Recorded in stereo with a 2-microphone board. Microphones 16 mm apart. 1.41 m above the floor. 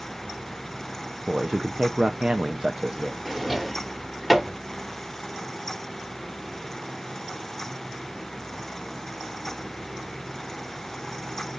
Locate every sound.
1.3 s a man speaking: 55° right (ahead or behind), 0.6 m
3.2 s a drawer: 10° right (ahead or behind), 1.2 m